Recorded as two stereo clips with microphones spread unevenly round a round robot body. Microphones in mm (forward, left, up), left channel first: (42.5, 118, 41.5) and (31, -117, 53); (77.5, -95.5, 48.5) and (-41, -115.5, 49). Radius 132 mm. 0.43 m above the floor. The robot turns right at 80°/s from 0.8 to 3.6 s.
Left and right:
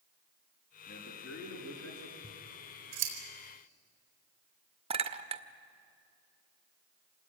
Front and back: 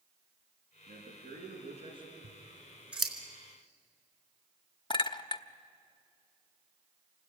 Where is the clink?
30° right, 1.0 m.